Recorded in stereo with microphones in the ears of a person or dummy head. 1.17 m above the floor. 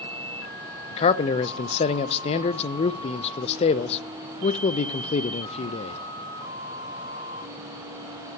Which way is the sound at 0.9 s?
35° left (ahead or behind).